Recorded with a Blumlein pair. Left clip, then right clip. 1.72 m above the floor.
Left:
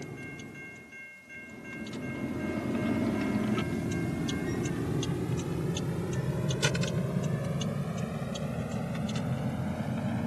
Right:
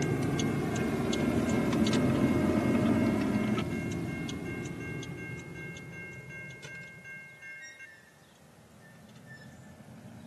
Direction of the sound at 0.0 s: 60° right.